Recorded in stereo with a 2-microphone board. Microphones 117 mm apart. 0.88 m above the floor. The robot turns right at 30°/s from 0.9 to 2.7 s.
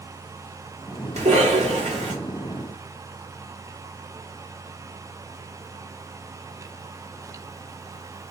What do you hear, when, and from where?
1.2 s a cough: 75° right (ahead or behind), 1.7 m; by 2.1 s 70° right (ahead or behind), 1.7 m